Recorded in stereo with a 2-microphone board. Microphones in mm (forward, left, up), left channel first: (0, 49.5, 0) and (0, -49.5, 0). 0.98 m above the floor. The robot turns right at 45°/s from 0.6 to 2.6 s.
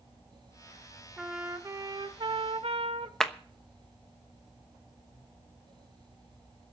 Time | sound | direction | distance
1.2 | a trumpet | 175° right | 1.5 m
3.2 | a clap | 5° left (ahead or behind) | 1.0 m